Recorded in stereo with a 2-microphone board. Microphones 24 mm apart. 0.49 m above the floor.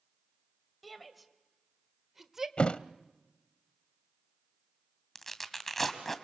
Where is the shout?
Centre (ahead or behind), 2.5 m; by 2.5 s 15° right (ahead or behind), 1.5 m.